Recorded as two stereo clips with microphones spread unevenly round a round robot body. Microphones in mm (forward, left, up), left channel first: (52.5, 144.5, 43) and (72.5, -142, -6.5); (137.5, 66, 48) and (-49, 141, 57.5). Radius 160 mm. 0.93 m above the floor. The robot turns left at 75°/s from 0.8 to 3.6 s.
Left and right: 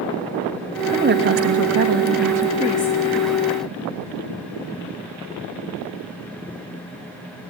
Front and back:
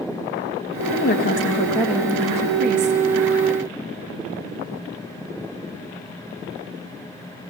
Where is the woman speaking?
35° right, 1.5 m; by 3.0 s 175° left, 1.5 m.